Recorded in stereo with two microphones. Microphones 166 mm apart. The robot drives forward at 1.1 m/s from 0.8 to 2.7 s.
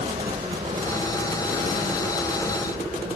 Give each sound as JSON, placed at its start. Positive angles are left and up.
{"t": 0.0, "sound": "a helicopter", "side_deg": -35}